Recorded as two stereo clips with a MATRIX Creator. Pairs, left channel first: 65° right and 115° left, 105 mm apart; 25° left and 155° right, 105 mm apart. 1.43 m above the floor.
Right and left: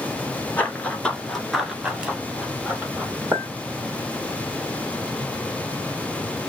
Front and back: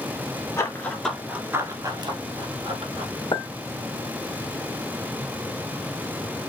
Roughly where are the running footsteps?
Ahead.